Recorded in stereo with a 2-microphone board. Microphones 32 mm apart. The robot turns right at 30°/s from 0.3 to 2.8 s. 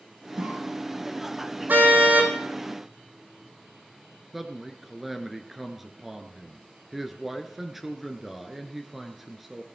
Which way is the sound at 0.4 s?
70° right (ahead or behind).